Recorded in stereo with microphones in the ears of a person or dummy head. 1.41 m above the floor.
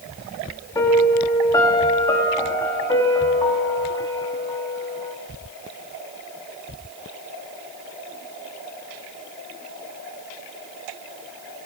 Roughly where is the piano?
Centre.